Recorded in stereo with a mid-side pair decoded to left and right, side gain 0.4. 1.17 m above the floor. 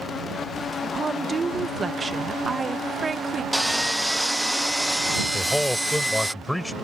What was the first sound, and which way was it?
A woman speaking, 35° right.